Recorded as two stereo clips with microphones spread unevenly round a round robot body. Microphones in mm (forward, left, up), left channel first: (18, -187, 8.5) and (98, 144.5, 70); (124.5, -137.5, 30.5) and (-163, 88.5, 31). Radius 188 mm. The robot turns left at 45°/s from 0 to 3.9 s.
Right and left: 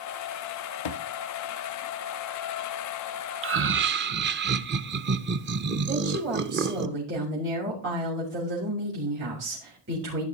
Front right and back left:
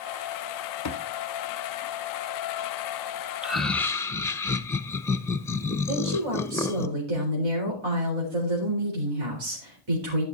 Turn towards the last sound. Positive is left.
turn(degrees=140)